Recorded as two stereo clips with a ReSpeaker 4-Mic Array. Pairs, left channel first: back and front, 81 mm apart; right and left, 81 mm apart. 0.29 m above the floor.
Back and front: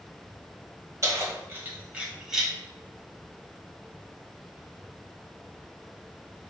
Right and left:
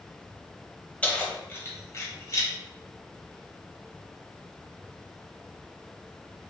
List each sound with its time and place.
1.0 s keys jangling: 25° right, 1.0 m; by 2.5 s 90° right, 1.0 m